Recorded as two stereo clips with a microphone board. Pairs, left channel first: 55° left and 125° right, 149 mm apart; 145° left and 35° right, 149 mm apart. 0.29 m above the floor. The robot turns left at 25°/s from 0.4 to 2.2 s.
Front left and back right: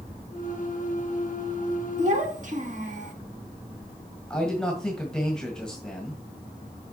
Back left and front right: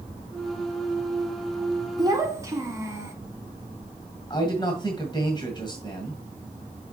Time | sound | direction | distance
2.0 | a child speaking | 95° right | 1.4 m
4.3 | a man speaking | 140° left | 1.7 m